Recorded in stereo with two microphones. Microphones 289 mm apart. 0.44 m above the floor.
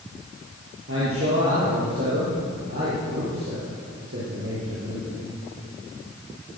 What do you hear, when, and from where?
0.9 s a man speaking: 50° right (ahead or behind), 8.5 m